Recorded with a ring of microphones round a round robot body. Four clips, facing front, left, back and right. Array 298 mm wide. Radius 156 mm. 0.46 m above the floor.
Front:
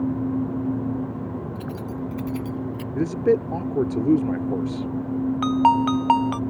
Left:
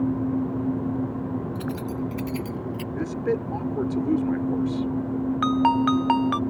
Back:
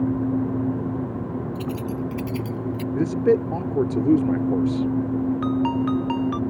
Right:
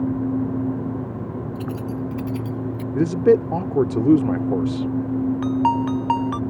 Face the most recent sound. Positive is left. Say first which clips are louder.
# left 2 dB, front 4 dB
turn(degrees=30)